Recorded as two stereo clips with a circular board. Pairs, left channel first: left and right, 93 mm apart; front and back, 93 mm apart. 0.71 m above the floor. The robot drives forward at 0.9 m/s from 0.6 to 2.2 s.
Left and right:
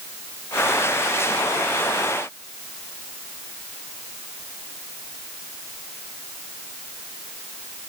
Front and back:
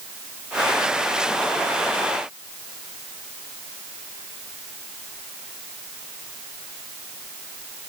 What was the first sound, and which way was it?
Only background noise.